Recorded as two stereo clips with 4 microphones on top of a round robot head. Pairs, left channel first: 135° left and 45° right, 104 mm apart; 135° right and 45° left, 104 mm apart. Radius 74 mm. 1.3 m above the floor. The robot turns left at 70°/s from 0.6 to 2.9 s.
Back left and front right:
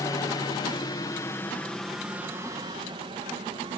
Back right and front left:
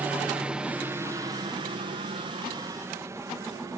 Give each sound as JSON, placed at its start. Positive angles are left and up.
{"t": 0.0, "sound": "a helicopter", "azimuth_deg": 110}